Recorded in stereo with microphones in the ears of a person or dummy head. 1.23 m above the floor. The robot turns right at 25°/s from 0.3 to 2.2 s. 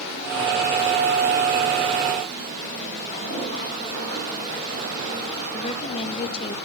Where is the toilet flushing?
40° left (ahead or behind), 5.5 m.